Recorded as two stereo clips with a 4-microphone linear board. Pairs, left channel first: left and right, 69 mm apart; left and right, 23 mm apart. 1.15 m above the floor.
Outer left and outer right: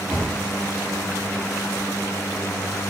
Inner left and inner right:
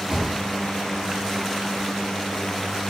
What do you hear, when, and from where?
0.1 s a thud: 45° right (ahead or behind), 3.5 m